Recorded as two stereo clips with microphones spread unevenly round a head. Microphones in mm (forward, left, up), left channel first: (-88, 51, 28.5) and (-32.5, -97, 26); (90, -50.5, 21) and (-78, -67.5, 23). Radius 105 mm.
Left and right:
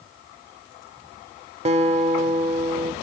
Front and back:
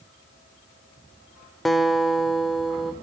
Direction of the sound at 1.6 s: 85° right.